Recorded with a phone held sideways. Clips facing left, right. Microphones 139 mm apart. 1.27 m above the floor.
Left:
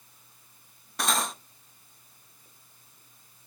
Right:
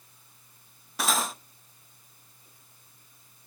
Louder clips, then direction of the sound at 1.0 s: Even; 5° right (ahead or behind).